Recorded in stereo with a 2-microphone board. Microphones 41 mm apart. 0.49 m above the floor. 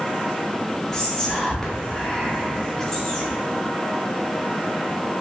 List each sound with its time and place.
0.9 s whispering: 15° left (ahead or behind), 0.8 m